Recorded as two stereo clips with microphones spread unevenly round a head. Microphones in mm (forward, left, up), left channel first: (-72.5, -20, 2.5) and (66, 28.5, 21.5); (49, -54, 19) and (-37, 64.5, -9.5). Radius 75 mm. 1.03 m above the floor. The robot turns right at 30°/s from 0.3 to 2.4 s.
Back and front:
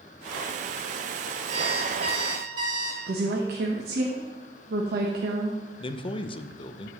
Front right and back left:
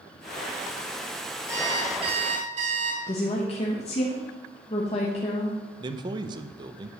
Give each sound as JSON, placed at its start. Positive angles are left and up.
{"t": 1.5, "sound": "an alarm clock", "azimuth_deg": 50, "distance_m": 3.0}
{"t": 3.1, "sound": "a woman speaking", "azimuth_deg": 0, "distance_m": 1.1}
{"t": 5.8, "sound": "a man speaking", "azimuth_deg": 165, "distance_m": 0.6}